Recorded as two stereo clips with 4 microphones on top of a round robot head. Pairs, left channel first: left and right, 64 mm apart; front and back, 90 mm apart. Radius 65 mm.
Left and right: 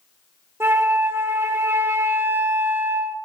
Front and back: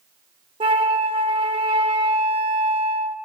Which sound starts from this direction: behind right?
A flute, at 0.6 s.